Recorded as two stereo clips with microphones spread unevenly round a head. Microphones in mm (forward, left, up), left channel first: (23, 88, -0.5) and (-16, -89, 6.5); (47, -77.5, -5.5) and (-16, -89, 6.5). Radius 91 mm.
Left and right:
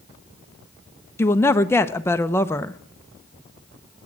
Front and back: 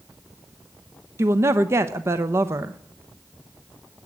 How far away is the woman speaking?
About 0.6 m.